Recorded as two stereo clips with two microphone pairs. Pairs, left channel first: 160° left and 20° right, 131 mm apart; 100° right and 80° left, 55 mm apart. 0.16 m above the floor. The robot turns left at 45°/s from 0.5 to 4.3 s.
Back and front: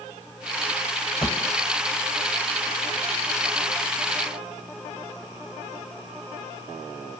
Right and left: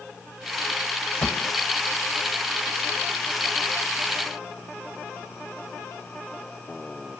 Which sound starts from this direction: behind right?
A gunshot, at 1.2 s.